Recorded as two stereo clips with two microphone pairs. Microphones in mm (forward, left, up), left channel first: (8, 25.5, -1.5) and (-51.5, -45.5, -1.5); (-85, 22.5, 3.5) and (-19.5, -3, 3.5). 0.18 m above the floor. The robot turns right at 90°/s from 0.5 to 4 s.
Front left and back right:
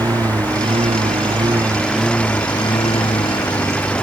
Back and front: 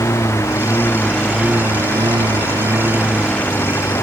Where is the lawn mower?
Straight behind; by 4.0 s 135° left.